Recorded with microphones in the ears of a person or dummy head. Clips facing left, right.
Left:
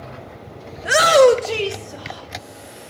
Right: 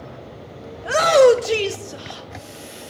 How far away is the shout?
About 0.6 m.